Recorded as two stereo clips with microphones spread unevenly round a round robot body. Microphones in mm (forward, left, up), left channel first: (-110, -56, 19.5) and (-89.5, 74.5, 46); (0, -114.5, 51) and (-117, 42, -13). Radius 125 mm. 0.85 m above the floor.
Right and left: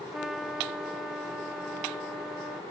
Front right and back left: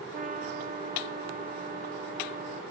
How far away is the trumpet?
About 0.8 m.